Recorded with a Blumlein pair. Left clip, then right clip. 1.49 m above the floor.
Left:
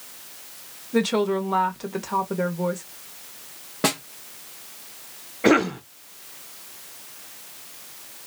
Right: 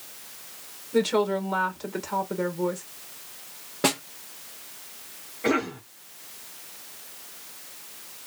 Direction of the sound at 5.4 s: 65° left.